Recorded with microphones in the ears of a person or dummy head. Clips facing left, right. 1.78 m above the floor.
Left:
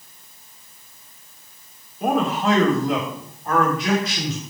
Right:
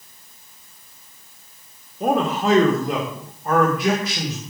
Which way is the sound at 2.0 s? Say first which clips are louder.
Right 1 dB; 30° right (ahead or behind).